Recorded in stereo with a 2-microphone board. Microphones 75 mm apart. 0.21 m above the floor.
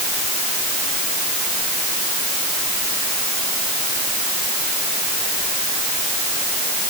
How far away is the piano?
No piano in this recording.